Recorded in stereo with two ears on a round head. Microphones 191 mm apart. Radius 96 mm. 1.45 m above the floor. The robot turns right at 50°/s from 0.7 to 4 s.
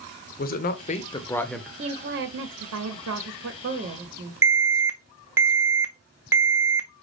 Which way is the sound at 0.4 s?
135° left.